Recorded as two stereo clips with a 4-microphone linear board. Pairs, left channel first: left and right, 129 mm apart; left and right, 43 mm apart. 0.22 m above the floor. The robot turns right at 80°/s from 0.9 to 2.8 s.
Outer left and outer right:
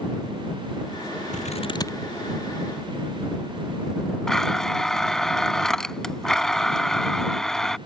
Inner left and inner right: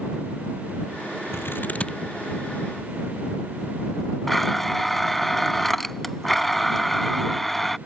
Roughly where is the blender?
Centre.